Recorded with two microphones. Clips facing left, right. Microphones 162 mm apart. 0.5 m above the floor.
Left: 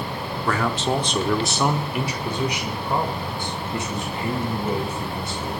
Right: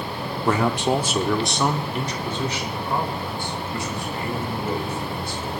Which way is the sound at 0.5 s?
25° right (ahead or behind).